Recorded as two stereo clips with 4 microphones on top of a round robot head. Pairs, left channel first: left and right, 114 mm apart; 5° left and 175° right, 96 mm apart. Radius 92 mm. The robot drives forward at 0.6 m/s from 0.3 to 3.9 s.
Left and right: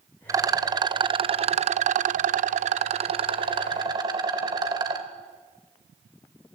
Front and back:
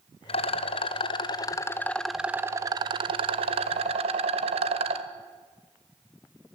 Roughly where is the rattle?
Ahead right.